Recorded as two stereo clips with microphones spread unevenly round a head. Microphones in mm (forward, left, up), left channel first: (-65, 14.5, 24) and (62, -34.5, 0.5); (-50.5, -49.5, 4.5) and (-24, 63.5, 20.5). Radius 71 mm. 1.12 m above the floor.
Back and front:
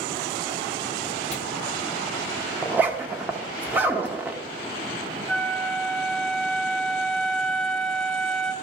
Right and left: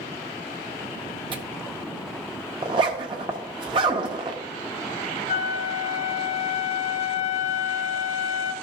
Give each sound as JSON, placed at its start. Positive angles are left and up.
{"t": 1.3, "sound": "tearing paper", "azimuth_deg": 120, "distance_m": 0.8}
{"t": 2.6, "sound": "a zipper", "azimuth_deg": 65, "distance_m": 0.8}
{"t": 5.3, "sound": "a flute", "azimuth_deg": -115, "distance_m": 1.8}